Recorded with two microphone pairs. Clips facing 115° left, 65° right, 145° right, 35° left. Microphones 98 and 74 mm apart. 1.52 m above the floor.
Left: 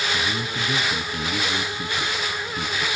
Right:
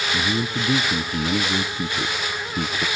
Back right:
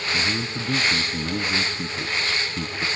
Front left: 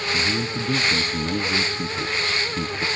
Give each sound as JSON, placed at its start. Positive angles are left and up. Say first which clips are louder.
{"t": 0.1, "sound": "a man speaking", "louder": "right 3 dB, front left 1 dB", "azimuth_deg": -45, "distance_m": 1.3}